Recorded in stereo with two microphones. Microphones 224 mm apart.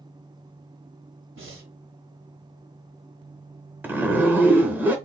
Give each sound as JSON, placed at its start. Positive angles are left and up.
{"t": 1.4, "sound": "breathing", "side_deg": -65, "distance_m": 2.0}
{"t": 3.8, "sound": "a zipper", "side_deg": -10, "distance_m": 0.8}